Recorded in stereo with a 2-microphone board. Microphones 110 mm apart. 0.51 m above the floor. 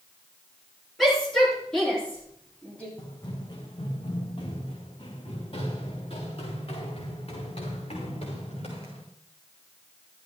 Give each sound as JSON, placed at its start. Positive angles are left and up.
{"t": 1.0, "sound": "a shout", "side_deg": 0, "distance_m": 8.5}
{"t": 3.0, "sound": "running footsteps", "side_deg": 35, "distance_m": 2.5}